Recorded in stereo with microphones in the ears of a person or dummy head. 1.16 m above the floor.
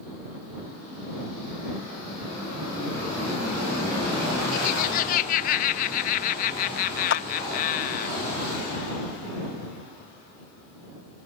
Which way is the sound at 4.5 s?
55° left (ahead or behind).